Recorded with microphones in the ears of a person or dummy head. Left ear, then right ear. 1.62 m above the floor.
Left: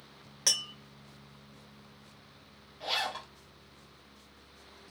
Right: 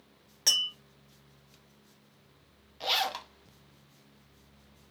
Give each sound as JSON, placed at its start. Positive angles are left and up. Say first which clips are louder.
{"t": 0.5, "sound": "tapping", "louder": "right 3 dB", "side_deg": 5, "distance_m": 0.8}
{"t": 2.8, "sound": "a zipper", "louder": "right 3 dB", "side_deg": -35, "distance_m": 0.5}